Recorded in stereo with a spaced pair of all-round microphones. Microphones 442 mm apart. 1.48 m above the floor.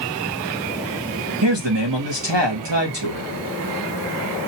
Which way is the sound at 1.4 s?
70° right (ahead or behind).